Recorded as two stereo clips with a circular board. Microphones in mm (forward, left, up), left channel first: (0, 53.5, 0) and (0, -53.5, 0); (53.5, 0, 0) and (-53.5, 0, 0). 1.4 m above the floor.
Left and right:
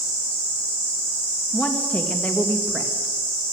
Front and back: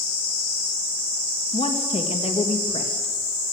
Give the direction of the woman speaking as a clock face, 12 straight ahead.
12 o'clock.